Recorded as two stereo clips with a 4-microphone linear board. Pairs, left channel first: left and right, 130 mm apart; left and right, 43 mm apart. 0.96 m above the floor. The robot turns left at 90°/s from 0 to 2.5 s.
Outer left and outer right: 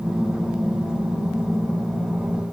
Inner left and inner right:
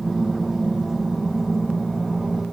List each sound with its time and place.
Only background noise.